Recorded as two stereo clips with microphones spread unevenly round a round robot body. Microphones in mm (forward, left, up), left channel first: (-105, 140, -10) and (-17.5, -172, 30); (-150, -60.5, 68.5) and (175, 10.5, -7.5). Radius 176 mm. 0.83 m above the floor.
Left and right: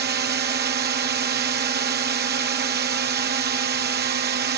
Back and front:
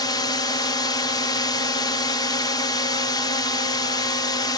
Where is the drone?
70° right.